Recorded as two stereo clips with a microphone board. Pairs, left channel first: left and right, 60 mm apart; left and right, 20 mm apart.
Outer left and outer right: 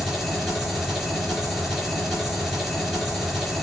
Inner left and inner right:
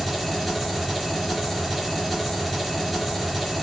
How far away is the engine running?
About 4.5 m.